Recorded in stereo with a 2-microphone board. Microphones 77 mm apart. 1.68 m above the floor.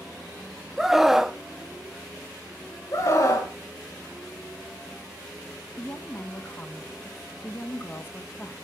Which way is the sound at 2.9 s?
45° left (ahead or behind).